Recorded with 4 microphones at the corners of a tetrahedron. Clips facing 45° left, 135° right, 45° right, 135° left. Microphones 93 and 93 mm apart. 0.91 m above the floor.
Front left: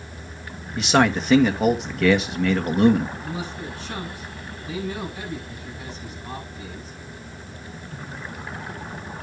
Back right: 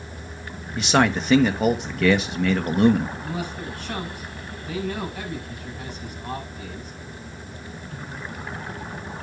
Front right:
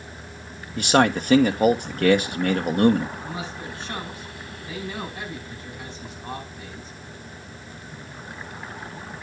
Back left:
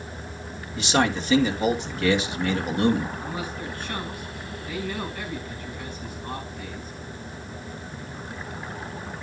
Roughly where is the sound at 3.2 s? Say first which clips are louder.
Back right 1 dB, back left 1 dB; right.